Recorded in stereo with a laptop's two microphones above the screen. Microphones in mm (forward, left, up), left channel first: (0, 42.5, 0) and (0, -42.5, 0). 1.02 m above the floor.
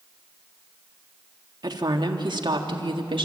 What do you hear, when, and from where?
1.6 s a woman speaking: 50° right (ahead or behind), 2 m; by 3.3 s 75° right (ahead or behind), 2 m